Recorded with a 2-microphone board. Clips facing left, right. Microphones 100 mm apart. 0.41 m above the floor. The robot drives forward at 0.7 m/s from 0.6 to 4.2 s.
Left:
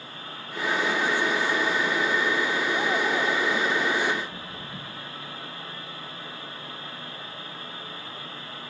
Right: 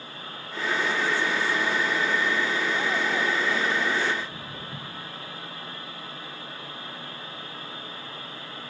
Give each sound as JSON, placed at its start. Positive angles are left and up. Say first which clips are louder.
{"t": 4.1, "sound": "footsteps", "louder": "left 1 dB", "side_deg": -5, "distance_m": 3.5}